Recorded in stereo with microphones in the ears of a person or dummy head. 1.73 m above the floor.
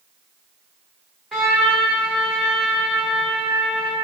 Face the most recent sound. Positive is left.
turn(degrees=0)  # may be behind; listen again after turning